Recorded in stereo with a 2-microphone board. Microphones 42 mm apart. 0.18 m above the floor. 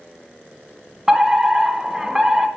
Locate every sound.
1.1 s a fire alarm: 15° right (ahead or behind), 2 m